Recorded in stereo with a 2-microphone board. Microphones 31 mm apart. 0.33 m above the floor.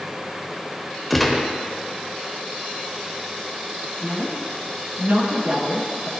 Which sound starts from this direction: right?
A woman speaking, at 4.0 s.